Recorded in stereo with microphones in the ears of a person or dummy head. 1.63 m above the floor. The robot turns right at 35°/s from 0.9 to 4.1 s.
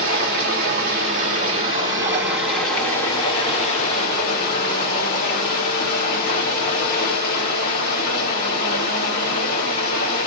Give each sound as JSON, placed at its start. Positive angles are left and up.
{"t": 0.0, "sound": "running water", "azimuth_deg": -60, "distance_m": 1.9}